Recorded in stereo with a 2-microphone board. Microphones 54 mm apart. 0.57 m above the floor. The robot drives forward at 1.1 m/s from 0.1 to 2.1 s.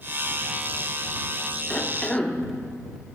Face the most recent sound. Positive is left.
turn(degrees=15)  # may be behind; listen again after turning